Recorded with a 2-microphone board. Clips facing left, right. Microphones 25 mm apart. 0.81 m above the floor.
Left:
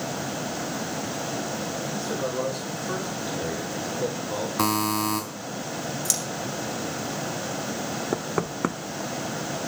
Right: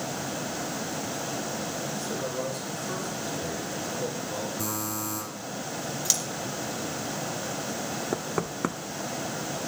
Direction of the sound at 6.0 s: 20° right (ahead or behind).